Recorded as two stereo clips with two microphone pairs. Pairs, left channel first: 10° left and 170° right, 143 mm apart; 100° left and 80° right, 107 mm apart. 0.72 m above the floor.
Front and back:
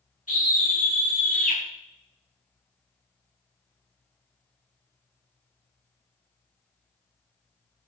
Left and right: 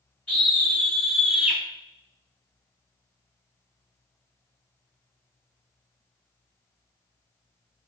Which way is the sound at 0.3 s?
25° left.